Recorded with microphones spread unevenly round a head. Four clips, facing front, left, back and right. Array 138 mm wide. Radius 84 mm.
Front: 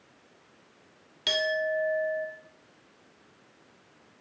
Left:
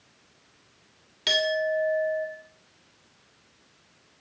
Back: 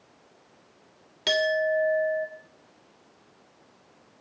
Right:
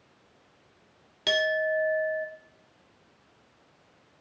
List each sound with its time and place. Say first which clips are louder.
1.3 s a clink: even, back 4 dB; 145° right, 1.2 m